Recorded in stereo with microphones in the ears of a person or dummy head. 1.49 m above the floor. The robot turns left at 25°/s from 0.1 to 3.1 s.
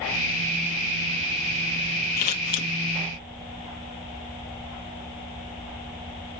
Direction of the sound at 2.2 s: 40° left (ahead or behind).